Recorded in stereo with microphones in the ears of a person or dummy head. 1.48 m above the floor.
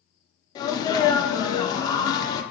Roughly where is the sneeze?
Left.